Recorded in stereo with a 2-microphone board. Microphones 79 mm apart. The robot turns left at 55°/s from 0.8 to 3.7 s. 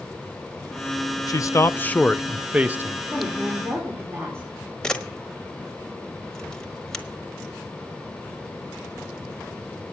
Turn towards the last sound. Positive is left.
turn(degrees=10)  # may be behind; listen again after turning